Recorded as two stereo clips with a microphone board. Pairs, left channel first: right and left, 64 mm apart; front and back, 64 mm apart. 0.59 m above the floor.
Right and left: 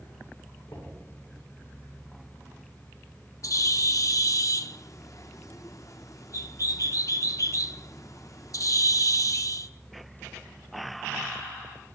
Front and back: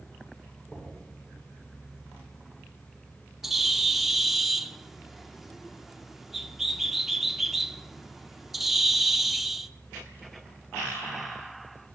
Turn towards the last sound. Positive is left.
turn(degrees=-95)